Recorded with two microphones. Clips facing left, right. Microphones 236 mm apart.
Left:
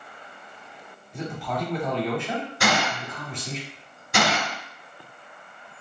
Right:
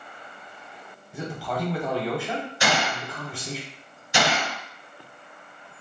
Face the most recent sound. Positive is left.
turn(degrees=55)  # may be behind; listen again after turning